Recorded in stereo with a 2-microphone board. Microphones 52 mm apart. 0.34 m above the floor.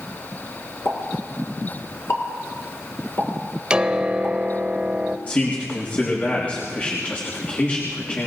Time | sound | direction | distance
0.8 | a pop | 55° left (ahead or behind) | 4 m
3.7 | a piano | 20° right (ahead or behind) | 0.8 m
5.3 | a man speaking | 30° left (ahead or behind) | 3.5 m